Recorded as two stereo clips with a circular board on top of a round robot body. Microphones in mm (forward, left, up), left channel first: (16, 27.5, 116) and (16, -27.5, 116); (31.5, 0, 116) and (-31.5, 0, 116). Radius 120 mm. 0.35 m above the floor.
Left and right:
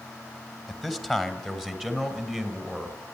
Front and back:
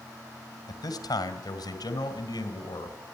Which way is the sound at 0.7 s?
5° right.